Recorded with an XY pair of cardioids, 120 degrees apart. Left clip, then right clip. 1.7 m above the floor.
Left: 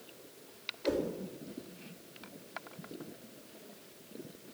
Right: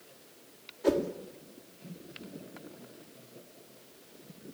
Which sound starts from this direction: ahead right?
A whoosh, at 0.8 s.